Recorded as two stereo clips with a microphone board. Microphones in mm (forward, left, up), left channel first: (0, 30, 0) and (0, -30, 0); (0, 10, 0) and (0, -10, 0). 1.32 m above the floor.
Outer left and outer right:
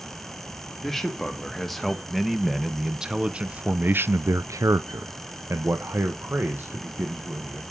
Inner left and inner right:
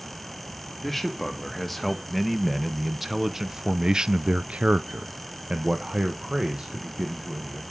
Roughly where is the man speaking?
Centre.